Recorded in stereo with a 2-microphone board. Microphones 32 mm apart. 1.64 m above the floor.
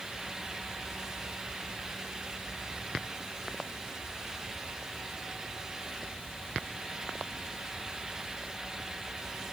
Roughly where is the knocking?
No knocking in this recording.